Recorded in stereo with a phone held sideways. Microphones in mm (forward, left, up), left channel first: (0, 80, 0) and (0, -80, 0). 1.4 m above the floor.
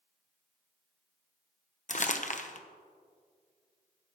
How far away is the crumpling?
About 1.0 m.